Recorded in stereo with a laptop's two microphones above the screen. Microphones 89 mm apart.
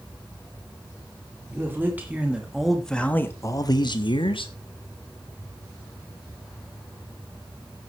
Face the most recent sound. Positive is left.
turn(degrees=75)  # may be behind; listen again after turning